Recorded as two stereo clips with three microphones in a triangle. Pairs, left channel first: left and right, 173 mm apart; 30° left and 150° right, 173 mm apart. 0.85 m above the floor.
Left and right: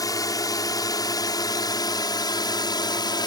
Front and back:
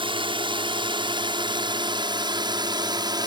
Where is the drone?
155° left; by 3.3 s 150° left.